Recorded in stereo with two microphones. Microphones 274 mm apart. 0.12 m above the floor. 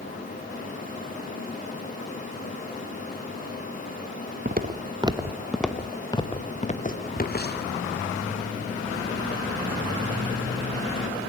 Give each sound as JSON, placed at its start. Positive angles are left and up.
{"t": 4.5, "sound": "footsteps", "side_deg": -35, "distance_m": 1.1}